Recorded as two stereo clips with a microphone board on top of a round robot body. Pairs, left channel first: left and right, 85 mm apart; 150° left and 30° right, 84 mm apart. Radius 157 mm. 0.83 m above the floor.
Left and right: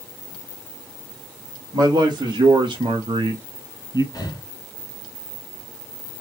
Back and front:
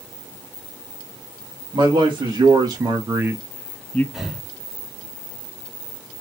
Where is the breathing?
55° left, 1.5 m.